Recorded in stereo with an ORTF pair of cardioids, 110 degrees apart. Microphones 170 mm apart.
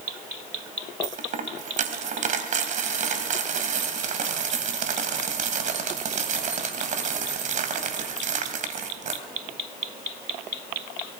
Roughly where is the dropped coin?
Ahead right.